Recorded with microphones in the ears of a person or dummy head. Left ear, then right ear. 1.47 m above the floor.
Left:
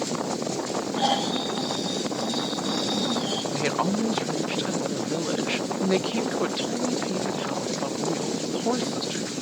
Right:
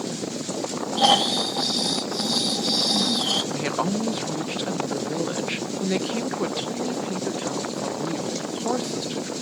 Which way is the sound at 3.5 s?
Centre (ahead or behind).